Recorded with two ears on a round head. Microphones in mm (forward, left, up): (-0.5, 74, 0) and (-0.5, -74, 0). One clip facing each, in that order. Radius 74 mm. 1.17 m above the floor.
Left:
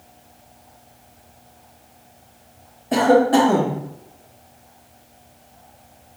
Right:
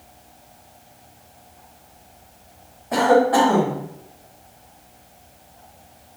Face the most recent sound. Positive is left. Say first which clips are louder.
# left 1 dB
turn(degrees=35)  # may be behind; listen again after turning